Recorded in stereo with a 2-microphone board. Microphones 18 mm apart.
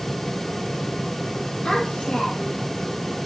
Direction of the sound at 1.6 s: 70° left (ahead or behind).